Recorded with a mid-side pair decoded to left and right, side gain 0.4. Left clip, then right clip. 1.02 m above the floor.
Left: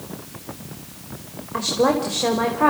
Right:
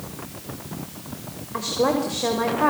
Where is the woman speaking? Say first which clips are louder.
Left 3 dB; 25° left, 5.5 m.